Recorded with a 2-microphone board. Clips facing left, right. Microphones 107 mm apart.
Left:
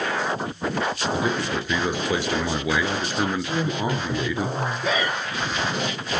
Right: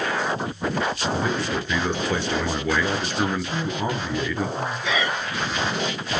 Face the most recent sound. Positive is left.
turn(degrees=40)  # may be behind; listen again after turning